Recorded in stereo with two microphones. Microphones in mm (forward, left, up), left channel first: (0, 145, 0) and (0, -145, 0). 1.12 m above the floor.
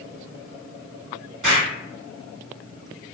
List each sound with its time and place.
1.4 s an explosion: 80° right, 1.4 m